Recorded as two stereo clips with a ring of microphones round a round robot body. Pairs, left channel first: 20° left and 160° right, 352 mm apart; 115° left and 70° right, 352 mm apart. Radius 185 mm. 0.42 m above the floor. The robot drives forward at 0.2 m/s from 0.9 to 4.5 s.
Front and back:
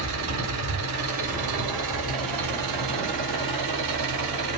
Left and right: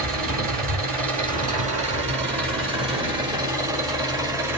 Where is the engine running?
130° right, 1.3 m; by 4.6 s 150° right, 1.8 m.